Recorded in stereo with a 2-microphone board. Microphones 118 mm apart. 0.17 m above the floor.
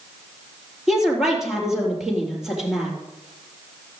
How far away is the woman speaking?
About 4 m.